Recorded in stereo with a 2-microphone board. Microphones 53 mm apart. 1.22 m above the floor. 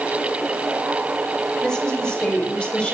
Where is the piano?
I don't hear a piano.